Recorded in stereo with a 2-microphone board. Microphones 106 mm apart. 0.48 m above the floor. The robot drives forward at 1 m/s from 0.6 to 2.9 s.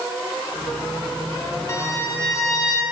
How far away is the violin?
About 3.5 m.